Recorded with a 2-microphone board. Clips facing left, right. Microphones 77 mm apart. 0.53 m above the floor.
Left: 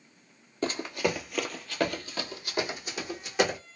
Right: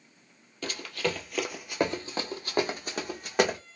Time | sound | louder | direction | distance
0.6 | running footsteps | left 3 dB | 35° left (ahead or behind) | 0.6 m